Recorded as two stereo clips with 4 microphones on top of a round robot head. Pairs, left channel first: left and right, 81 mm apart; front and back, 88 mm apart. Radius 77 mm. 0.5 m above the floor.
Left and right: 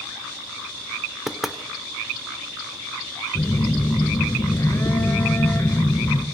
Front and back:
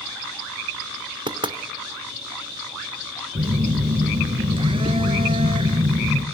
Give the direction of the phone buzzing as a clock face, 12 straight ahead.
7 o'clock.